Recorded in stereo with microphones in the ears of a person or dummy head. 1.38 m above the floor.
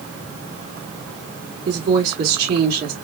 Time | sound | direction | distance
1.6 | a woman speaking | 60° right (ahead or behind) | 1.9 m